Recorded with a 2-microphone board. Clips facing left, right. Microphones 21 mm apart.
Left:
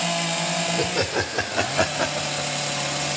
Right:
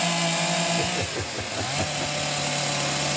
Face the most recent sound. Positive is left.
turn(degrees=40)  # may be behind; listen again after turning